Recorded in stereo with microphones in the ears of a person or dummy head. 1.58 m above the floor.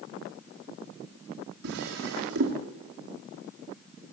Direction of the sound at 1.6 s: 65° right (ahead or behind).